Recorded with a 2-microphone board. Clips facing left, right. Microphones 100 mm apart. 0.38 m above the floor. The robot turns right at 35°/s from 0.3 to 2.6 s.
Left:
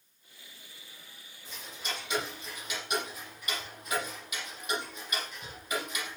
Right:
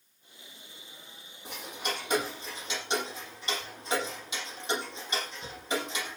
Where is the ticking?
65° right (ahead or behind), 6 m; by 6.2 s 25° right (ahead or behind), 6 m.